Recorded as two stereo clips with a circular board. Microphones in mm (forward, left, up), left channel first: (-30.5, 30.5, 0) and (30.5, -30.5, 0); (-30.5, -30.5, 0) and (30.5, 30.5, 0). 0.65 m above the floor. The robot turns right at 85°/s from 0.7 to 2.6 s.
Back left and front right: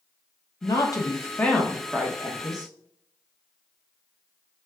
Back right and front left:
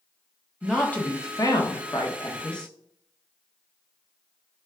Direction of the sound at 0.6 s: 140° left.